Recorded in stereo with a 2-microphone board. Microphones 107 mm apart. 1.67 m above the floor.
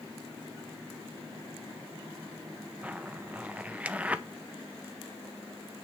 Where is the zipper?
15° right (ahead or behind), 0.7 m.